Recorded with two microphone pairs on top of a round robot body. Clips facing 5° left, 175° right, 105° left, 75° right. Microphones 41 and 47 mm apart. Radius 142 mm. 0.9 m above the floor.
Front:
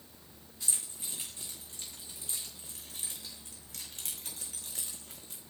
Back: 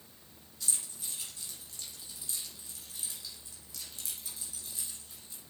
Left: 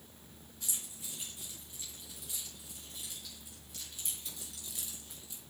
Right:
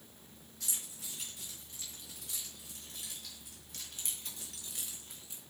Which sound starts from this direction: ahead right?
Keys jangling, at 0.6 s.